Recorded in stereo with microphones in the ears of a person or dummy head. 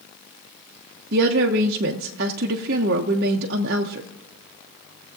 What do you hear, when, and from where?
1.1 s a woman speaking: 50° right (ahead or behind), 0.6 m